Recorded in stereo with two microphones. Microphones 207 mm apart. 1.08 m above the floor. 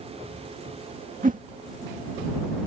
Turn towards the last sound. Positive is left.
turn(degrees=-40)  # may be behind; listen again after turning